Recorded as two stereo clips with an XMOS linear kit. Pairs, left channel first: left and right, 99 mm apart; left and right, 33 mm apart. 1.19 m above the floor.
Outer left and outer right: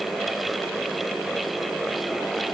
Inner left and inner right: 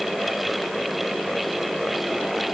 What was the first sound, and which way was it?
Only background noise.